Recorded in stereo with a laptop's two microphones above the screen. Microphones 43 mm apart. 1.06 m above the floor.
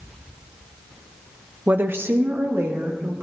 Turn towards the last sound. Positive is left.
turn(degrees=-75)  # may be behind; listen again after turning